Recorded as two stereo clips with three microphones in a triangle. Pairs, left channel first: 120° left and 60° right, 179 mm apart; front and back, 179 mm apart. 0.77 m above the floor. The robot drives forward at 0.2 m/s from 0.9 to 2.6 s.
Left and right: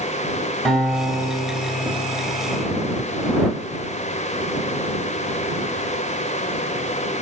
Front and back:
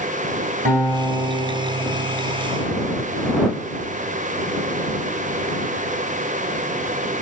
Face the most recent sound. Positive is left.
turn(degrees=-155)